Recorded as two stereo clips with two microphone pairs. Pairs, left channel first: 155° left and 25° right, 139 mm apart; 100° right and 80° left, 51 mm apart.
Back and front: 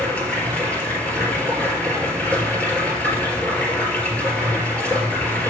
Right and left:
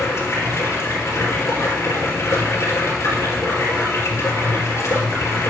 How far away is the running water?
About 4 m.